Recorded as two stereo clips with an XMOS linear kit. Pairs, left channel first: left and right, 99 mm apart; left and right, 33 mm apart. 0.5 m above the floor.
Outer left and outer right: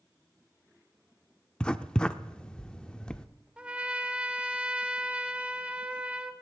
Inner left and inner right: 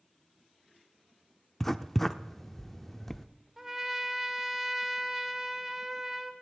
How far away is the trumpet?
About 0.9 m.